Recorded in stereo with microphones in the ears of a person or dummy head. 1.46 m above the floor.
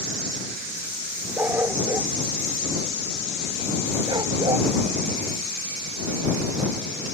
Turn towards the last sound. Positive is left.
turn(degrees=-20)  # may be behind; listen again after turning